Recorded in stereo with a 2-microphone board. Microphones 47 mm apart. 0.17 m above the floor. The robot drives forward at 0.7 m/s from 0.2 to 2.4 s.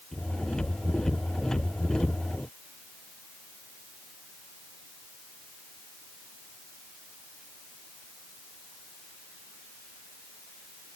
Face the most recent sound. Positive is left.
No sound to turn to.